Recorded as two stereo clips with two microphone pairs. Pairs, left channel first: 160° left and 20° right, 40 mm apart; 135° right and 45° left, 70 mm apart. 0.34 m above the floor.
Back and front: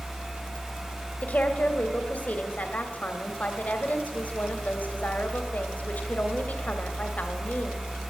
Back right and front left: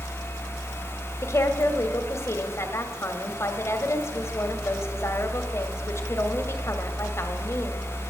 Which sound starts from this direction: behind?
A woman speaking, at 1.2 s.